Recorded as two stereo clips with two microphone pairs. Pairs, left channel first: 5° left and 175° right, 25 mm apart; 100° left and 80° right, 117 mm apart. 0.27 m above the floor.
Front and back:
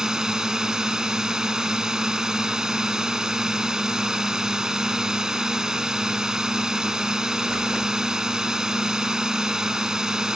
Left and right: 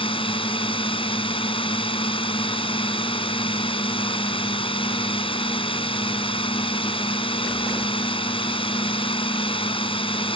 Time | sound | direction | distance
0.0 | a drone | 125° left | ?